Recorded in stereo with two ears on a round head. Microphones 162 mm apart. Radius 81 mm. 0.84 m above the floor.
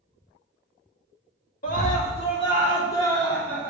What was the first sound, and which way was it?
A scream, 45° left (ahead or behind).